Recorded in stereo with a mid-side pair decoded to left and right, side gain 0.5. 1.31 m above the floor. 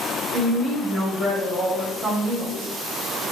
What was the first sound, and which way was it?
A woman speaking, 55° right.